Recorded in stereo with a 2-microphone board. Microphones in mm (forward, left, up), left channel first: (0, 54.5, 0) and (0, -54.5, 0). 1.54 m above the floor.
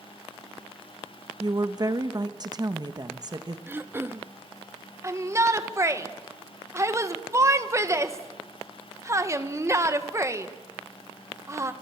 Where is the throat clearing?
20° right (ahead or behind), 0.8 m.